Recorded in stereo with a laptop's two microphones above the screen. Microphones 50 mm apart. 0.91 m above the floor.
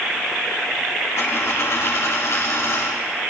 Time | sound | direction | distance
1.2 | a dropped coin | 60° left (ahead or behind) | 2.5 m